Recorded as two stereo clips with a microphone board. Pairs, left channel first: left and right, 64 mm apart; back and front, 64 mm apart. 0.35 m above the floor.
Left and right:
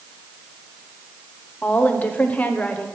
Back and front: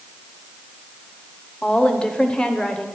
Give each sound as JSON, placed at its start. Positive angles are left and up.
{"t": 1.6, "sound": "a woman speaking", "azimuth_deg": 120, "distance_m": 0.9}